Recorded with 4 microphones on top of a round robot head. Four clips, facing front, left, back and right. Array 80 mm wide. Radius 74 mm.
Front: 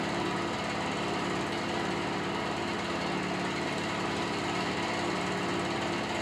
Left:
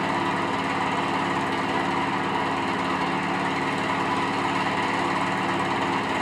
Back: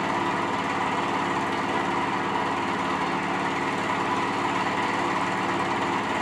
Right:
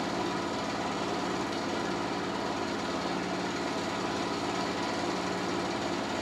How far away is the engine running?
About 3.5 m.